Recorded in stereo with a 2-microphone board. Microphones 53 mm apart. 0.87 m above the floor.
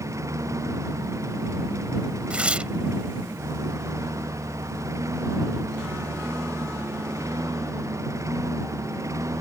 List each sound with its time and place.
0.0 s a lawn mower: 80° right
2.3 s tearing paper: 25° right (ahead or behind)